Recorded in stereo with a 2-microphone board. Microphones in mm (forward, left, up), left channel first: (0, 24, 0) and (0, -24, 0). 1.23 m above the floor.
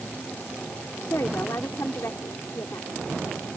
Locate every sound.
1.1 s a woman speaking: 80° left